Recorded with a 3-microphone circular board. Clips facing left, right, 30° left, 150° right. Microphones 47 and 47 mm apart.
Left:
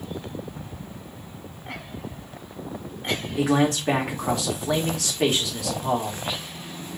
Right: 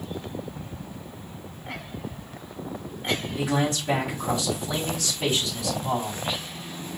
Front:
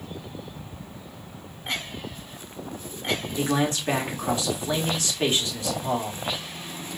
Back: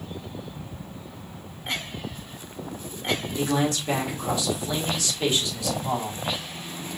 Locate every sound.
3.4 s a man speaking: 85° left, 2 m